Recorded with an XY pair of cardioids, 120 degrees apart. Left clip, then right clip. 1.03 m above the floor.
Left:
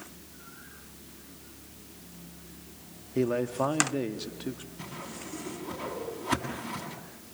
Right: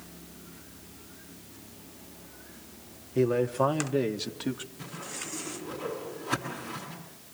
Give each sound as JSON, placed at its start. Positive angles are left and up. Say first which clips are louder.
{"t": 3.1, "sound": "a man speaking", "louder": "right 3 dB", "azimuth_deg": 5, "distance_m": 1.7}
{"t": 4.8, "sound": "a whoosh", "louder": "right 2 dB", "azimuth_deg": 35, "distance_m": 7.0}